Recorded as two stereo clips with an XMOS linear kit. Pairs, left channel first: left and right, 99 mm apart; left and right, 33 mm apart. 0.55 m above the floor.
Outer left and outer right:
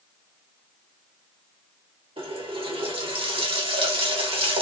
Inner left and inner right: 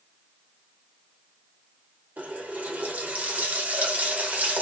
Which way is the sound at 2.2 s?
70° right (ahead or behind).